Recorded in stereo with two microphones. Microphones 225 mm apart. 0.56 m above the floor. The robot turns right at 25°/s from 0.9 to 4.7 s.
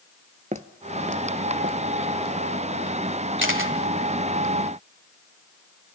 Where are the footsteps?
35° right (ahead or behind), 0.6 m; by 3.0 s 60° right (ahead or behind), 1.9 m.